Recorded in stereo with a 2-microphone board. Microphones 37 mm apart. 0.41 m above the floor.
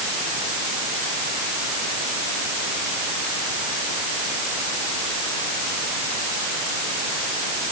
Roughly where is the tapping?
No tapping in this recording.